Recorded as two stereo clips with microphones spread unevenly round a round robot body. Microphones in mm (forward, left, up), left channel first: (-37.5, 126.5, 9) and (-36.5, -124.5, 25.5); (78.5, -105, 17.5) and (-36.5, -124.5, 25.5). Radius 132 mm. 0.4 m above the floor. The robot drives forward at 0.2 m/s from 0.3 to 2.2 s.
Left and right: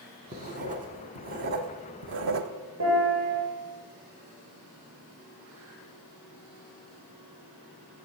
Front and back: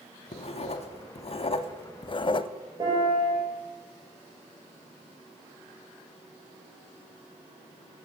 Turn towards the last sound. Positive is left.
turn(degrees=-115)